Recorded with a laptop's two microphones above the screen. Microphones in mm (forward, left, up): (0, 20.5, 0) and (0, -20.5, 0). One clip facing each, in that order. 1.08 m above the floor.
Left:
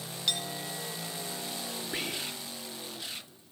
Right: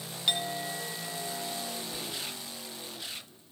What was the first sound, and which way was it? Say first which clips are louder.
A clink: right 3 dB; 25° right (ahead or behind).